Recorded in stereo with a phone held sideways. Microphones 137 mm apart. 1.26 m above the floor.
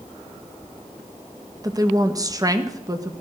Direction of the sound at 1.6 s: 25° right (ahead or behind).